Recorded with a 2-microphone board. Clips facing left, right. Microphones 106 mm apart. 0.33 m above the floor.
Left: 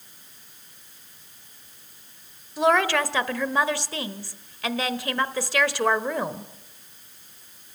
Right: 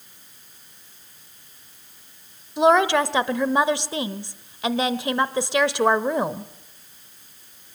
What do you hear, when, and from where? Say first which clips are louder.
2.6 s a woman speaking: right 4 dB; 20° right (ahead or behind), 1.1 m